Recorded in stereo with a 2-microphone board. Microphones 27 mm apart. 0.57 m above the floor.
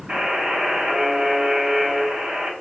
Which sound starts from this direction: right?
A buzzer, at 0.1 s.